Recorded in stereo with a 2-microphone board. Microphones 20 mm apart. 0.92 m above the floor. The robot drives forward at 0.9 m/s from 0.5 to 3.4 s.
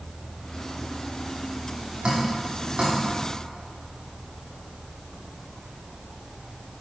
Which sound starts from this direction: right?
Dripping, at 2.0 s.